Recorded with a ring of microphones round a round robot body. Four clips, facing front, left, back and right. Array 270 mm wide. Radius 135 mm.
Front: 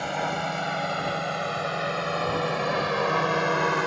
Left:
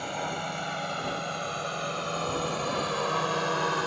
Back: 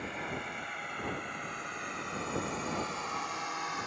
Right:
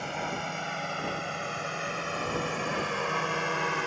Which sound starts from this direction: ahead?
A drone, at 0.0 s.